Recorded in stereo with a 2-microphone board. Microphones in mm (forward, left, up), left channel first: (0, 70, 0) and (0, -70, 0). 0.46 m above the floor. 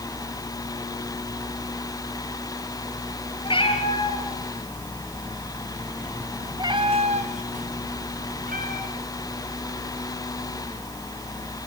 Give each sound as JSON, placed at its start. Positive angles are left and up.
{"t": 3.4, "sound": "a cat meowing", "side_deg": 40, "distance_m": 4.5}